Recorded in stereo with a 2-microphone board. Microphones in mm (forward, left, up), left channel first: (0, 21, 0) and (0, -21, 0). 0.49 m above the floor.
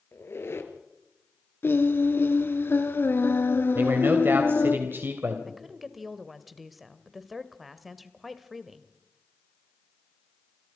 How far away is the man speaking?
About 3 m.